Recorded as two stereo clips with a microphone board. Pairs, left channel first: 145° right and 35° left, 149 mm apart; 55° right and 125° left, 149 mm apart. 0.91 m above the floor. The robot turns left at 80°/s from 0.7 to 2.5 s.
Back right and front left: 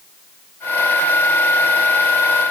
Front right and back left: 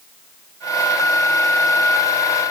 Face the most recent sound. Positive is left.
No sound to turn to.